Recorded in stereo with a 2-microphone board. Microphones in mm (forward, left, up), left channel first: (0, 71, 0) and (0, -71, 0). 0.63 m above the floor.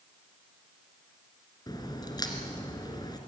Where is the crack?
30° left (ahead or behind), 2 m.